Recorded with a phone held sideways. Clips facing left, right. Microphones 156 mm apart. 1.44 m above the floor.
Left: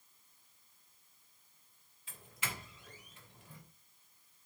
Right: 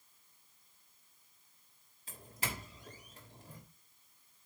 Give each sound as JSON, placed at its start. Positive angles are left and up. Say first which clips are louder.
{"t": 2.1, "sound": "a doorbell", "louder": "right 3 dB", "side_deg": -40, "distance_m": 2.5}